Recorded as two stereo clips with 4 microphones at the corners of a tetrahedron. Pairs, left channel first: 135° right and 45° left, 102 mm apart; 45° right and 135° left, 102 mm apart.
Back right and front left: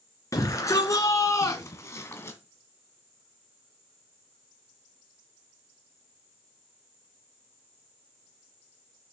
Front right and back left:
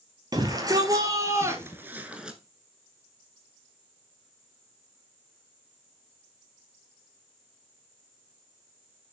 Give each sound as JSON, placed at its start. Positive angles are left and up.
{"t": 0.3, "sound": "a shout", "azimuth_deg": 175, "distance_m": 2.5}